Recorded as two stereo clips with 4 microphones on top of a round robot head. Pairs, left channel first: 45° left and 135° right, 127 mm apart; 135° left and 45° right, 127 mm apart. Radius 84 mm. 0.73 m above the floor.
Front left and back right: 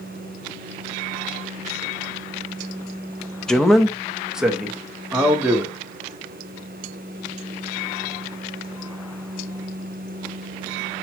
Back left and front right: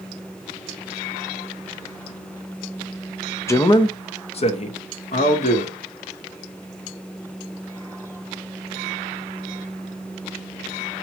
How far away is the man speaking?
About 0.7 m.